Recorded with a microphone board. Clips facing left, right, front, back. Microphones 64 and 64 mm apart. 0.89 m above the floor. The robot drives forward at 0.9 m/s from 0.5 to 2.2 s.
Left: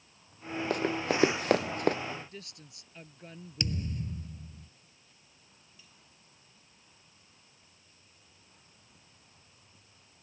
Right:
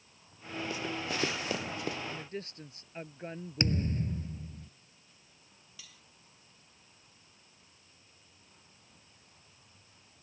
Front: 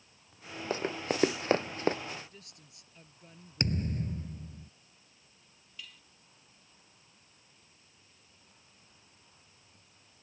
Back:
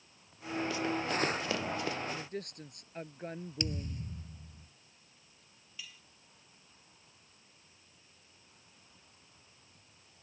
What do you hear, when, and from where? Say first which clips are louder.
0.7 s running footsteps: left 8 dB, front 3 dB; 50° left
2.1 s a woman speaking: right 1 dB, back 6 dB; 145° right
3.6 s a thud: right 4 dB, front 8 dB; 40° right
5.8 s cutlery clinking: right 7 dB, even; 95° right